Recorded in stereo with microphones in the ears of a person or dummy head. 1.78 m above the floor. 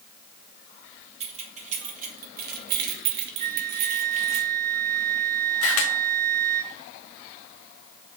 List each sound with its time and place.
1.2 s keys jangling: 40° right (ahead or behind), 3.5 m; by 4.4 s 30° right (ahead or behind), 1.8 m
3.4 s a flute: 35° right (ahead or behind), 2.5 m
5.6 s a camera shutter: 85° left, 1.9 m